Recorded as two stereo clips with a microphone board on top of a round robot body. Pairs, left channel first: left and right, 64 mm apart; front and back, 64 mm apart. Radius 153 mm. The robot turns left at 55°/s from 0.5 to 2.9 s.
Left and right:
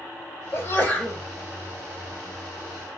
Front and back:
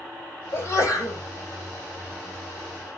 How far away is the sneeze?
About 2.5 m.